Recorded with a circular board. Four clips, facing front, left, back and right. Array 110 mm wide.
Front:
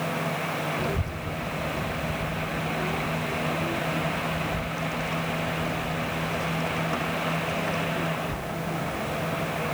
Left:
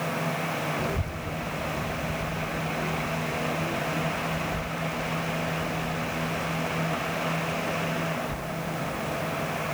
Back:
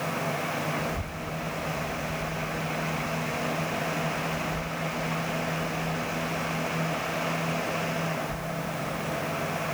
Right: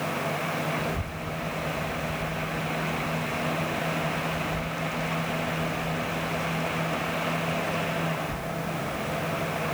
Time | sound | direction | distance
0.8 | a child speaking | 25° left | ?